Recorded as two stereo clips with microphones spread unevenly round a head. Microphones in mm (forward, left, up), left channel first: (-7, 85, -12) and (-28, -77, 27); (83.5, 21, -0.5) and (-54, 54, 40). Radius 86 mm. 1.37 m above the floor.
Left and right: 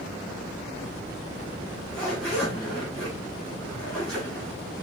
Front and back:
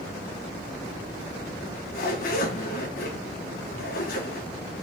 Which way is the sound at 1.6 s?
5° right.